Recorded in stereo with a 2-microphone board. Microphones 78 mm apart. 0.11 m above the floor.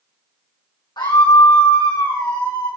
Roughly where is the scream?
Left.